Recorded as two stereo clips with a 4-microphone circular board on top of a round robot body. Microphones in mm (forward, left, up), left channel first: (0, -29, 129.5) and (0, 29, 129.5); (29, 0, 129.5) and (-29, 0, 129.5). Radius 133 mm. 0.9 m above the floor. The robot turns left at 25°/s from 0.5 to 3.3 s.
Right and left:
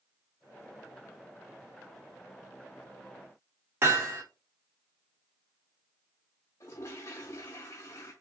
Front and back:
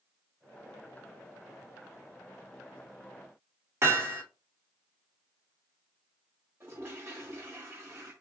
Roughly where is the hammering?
Behind left.